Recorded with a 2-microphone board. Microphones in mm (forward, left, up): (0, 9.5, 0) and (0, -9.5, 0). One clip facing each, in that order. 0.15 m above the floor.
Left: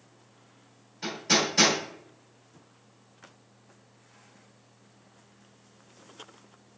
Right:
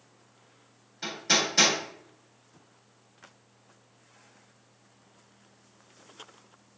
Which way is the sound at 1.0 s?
20° right (ahead or behind).